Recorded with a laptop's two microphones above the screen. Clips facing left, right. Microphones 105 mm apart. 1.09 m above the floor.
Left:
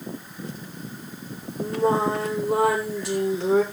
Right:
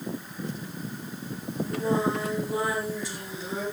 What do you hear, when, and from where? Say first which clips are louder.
1.6 s singing: left 4 dB; 70° left (ahead or behind), 3 m